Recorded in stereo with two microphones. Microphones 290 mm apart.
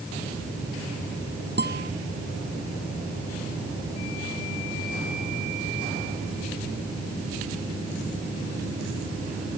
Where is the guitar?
35° right (ahead or behind).